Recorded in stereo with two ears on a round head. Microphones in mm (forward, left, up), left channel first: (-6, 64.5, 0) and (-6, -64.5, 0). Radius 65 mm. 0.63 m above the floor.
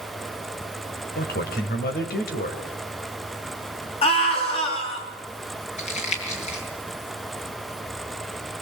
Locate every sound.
1.1 s a man speaking: 75° left (ahead or behind), 4 m
4.0 s a scream: 40° left (ahead or behind), 8 m
5.8 s crumpling: 45° left (ahead or behind), 6.5 m